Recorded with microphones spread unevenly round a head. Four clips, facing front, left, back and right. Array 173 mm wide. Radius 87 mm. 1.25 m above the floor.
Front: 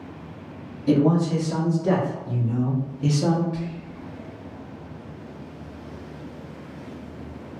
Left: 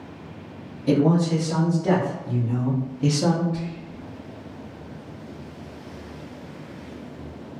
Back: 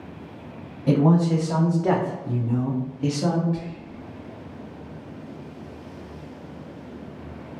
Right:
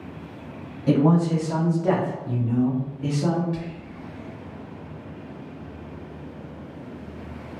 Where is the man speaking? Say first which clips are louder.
Even, even; 155° right, 1.3 m; by 3.4 s 70° left, 0.7 m.